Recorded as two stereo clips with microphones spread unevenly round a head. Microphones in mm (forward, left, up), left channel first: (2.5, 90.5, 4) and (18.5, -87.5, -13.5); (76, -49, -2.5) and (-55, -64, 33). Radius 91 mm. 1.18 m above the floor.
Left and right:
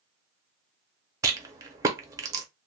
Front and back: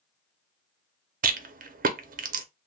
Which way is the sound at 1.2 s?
150° right.